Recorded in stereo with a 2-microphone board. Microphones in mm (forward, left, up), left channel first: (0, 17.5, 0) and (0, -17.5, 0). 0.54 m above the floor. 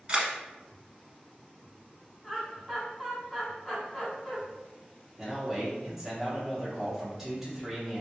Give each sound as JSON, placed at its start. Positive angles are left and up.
{"t": 0.1, "sound": "a camera shutter", "side_deg": -30, "distance_m": 0.7}
{"t": 2.2, "sound": "laughter", "side_deg": 0, "distance_m": 1.9}
{"t": 5.2, "sound": "a man speaking", "side_deg": -10, "distance_m": 1.2}